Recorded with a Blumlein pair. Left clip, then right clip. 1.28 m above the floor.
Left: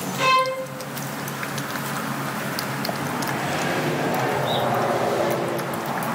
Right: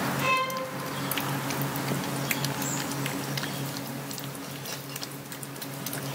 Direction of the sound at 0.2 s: 35° left.